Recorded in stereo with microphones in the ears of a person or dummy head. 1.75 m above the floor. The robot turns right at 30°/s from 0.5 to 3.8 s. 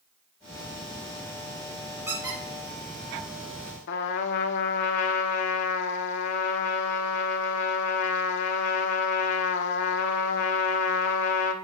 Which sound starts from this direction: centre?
A squeak, at 2.1 s.